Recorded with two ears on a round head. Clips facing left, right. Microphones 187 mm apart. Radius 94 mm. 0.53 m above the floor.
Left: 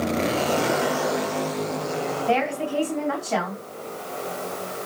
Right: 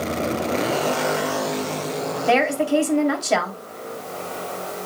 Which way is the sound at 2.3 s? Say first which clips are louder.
Right 7 dB; 75° right (ahead or behind).